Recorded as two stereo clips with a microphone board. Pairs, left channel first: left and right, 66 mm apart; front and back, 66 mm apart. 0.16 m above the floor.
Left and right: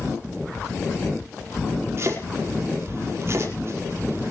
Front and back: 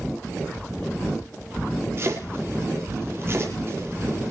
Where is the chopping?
130° right, 5 m.